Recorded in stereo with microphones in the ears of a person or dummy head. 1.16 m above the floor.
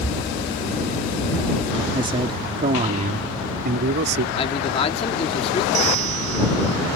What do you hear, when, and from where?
1.9 s a man speaking: 25° right (ahead or behind); by 4.2 s 55° right (ahead or behind)
4.3 s a man speaking: 30° left (ahead or behind)
5.7 s a bell: 40° right (ahead or behind)